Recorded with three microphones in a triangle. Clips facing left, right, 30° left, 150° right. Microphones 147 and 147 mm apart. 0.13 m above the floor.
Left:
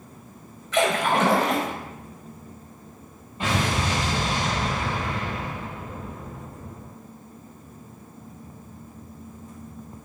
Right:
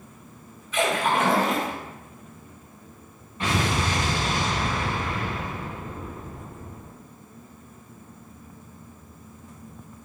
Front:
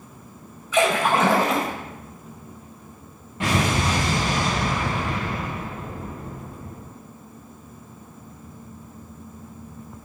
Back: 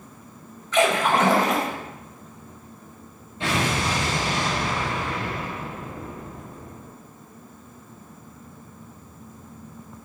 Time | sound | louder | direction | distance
0.7 | a splash | left 2 dB, even | 110° left | 1.1 m
3.4 | an explosion | even, front 2 dB | 25° left | 1.6 m